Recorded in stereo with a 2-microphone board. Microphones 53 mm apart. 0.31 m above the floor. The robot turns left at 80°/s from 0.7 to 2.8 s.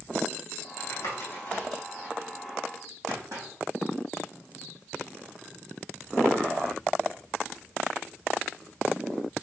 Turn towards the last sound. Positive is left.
turn(degrees=-80)